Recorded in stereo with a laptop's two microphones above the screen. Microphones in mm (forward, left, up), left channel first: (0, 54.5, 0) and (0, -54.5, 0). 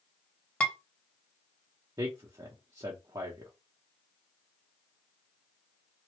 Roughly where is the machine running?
I don't hear a machine running.